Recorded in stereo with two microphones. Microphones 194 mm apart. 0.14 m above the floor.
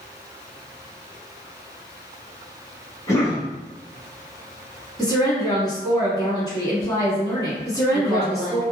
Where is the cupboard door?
I don't hear a cupboard door.